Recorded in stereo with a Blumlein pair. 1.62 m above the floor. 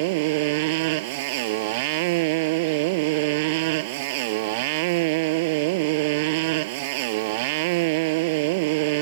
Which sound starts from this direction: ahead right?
A motorcycle, at 0.0 s.